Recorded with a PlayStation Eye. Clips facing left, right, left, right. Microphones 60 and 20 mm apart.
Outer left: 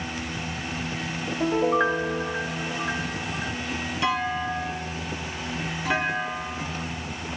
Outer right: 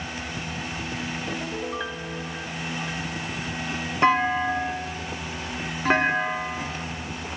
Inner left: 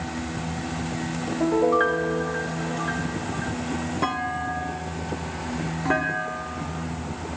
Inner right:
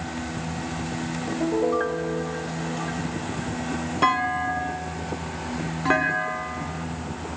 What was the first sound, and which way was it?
A piano, 35° left (ahead or behind).